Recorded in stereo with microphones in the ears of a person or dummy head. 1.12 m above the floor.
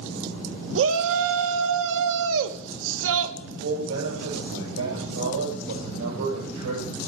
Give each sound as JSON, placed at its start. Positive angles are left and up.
{"t": 0.8, "sound": "a shout", "side_deg": -70, "distance_m": 0.8}
{"t": 3.4, "sound": "a man speaking", "side_deg": -80, "distance_m": 6.0}